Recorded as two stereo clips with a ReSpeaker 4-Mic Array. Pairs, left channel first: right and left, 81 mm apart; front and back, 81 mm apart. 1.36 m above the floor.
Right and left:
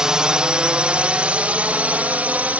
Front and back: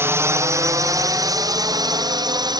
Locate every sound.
0.0 s a drone: 165° left; by 2.6 s 160° left